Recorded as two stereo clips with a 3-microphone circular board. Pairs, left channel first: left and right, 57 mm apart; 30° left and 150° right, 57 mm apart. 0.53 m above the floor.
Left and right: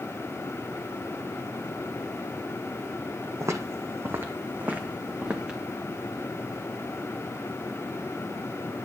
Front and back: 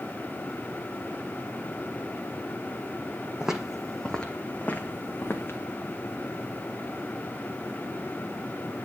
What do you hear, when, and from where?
3.4 s footsteps: 75° right, 1.1 m; by 5.6 s 15° right, 1.7 m